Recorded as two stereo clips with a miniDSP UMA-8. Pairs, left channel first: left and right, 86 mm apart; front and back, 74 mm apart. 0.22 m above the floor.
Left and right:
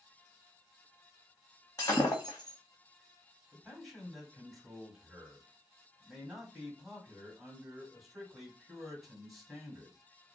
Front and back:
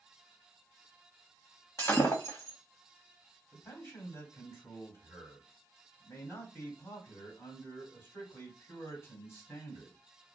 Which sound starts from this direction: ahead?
A man speaking, at 3.5 s.